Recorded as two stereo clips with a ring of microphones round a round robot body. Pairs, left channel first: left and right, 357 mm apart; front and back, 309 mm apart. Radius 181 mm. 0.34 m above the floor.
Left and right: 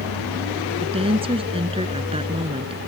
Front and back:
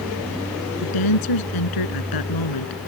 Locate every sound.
0.8 s a woman speaking: 15° right